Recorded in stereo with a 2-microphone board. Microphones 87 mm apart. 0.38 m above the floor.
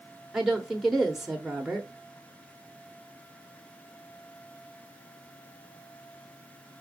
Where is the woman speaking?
Centre (ahead or behind), 1.0 m.